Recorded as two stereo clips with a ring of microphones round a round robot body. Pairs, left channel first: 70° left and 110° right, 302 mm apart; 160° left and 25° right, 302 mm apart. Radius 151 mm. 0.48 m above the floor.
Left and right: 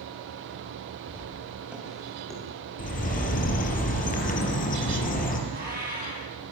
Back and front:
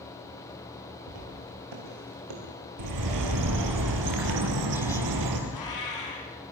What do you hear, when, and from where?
1.1 s footsteps: 30° right, 8.5 m; by 2.4 s 20° right, 8 m
2.8 s a bird: 5° left, 4.5 m
5.5 s a cat meowing: 175° right, 6.5 m